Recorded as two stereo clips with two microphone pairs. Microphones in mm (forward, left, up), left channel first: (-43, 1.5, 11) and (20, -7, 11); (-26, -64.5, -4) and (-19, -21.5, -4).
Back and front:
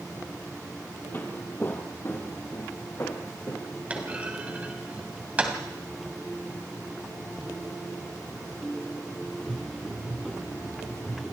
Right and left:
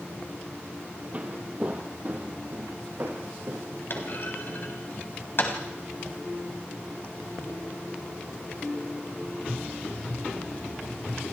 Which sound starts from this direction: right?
A clunk, at 3.9 s.